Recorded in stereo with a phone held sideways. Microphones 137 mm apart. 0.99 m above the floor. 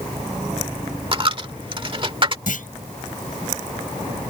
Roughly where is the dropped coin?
Right.